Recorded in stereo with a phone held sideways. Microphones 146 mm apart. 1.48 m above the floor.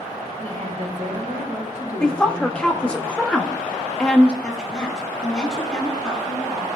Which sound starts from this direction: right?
A woman speaking, at 0.4 s.